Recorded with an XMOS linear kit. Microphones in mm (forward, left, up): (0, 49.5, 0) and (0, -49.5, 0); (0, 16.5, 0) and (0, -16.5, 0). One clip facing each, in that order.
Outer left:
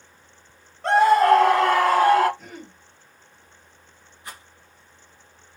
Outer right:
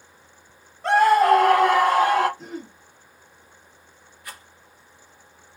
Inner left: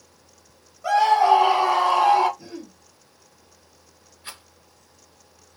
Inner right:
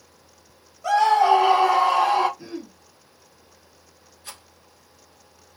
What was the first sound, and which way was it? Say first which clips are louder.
A scream: even, even; centre (ahead or behind).